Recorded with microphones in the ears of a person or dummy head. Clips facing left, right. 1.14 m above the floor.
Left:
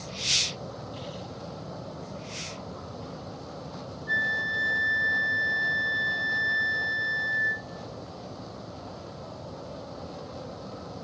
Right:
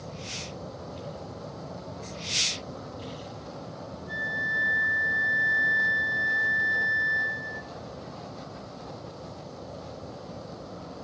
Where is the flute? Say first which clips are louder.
Left 1 dB; 35° left (ahead or behind), 0.6 m.